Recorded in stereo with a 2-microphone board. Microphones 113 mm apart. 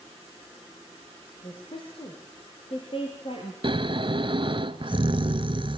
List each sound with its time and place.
1.4 s a woman speaking: 50° left (ahead or behind), 6 m; by 3.5 s 55° left (ahead or behind), 3.5 m
3.6 s snoring: 50° right (ahead or behind), 0.8 m